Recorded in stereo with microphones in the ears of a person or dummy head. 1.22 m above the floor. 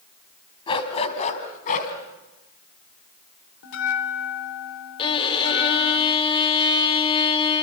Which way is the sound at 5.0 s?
25° left (ahead or behind).